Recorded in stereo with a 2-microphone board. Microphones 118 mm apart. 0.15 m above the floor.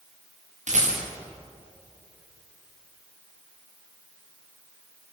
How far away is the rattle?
About 8 m.